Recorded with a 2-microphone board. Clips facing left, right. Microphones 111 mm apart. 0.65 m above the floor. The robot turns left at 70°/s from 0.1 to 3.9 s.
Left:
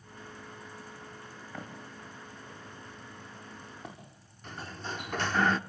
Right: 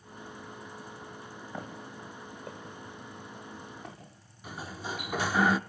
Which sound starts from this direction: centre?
A sliding door, at 4.4 s.